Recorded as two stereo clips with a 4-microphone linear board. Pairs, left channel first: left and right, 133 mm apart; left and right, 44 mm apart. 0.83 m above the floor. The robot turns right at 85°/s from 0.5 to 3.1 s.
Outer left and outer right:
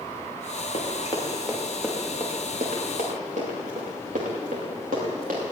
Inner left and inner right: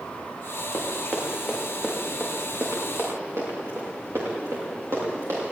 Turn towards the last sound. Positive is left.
turn(degrees=-85)